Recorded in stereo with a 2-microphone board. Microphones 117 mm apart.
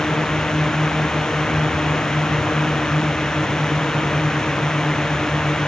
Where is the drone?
5° left (ahead or behind).